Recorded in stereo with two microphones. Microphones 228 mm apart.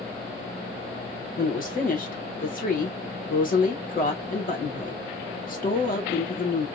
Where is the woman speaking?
40° left (ahead or behind), 0.9 m.